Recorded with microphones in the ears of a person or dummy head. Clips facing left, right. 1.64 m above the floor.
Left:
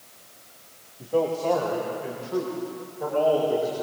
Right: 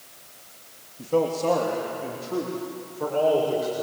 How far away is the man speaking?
About 3 m.